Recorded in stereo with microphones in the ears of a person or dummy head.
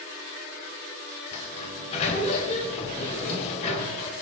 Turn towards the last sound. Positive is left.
turn(degrees=35)  # may be behind; listen again after turning